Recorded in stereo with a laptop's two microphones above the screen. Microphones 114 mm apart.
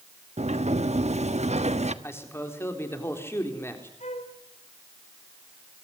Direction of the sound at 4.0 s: 70° left (ahead or behind).